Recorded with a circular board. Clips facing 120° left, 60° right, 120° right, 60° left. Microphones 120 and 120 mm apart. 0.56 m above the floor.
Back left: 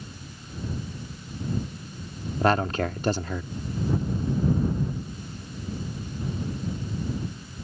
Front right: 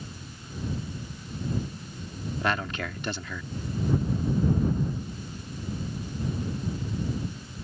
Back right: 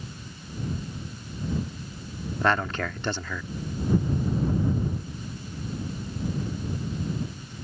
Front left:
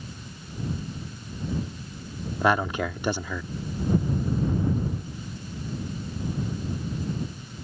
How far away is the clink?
I don't hear a clink.